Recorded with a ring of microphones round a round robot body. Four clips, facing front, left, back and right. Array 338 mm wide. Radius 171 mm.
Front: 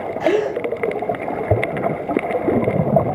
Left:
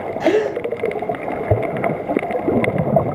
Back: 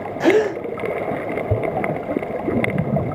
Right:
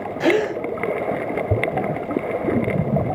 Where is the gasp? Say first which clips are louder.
Left 2 dB, back 2 dB; 160° right, 0.7 m.